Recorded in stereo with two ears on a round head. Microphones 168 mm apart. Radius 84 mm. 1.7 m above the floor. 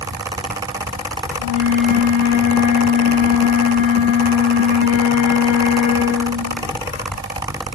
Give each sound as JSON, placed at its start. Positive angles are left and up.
{"t": 1.4, "sound": "a flute", "side_deg": 65, "distance_m": 9.5}